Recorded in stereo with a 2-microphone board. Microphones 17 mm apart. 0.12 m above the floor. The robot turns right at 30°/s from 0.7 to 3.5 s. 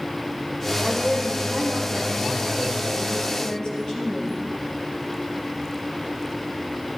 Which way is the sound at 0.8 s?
45° right.